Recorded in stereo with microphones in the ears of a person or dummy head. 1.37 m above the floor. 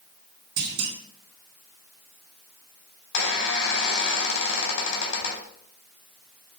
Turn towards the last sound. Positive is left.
turn(degrees=80)